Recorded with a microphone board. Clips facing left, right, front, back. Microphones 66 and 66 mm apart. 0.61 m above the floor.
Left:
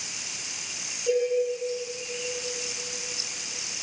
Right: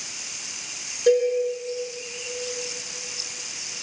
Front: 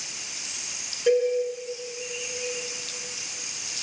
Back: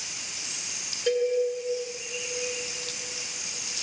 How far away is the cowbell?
About 7 m.